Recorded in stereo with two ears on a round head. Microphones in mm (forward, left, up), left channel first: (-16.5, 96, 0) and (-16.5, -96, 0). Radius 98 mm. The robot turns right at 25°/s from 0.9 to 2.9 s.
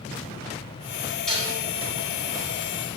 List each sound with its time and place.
1.3 s dishes clattering: 5° left (ahead or behind), 3 m; by 1.5 s 5° right (ahead or behind), 3 m